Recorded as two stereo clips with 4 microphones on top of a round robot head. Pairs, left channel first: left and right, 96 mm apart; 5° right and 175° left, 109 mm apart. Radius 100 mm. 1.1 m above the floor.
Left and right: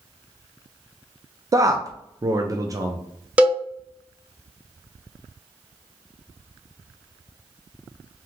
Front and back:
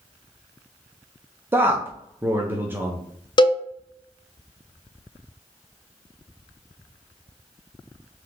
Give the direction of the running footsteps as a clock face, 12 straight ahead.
I don't hear running footsteps.